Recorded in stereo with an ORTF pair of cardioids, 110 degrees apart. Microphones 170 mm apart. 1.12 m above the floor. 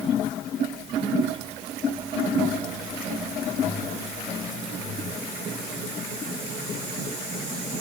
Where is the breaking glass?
No breaking glass in this recording.